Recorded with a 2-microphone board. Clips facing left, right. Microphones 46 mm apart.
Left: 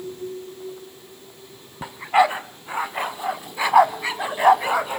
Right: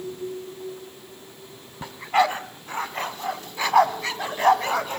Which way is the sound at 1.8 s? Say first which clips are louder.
Left 3 dB; 10° left (ahead or behind).